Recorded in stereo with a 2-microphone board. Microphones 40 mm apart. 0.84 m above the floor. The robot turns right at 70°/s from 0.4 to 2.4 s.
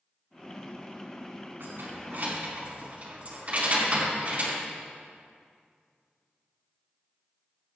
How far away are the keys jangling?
About 4.5 m.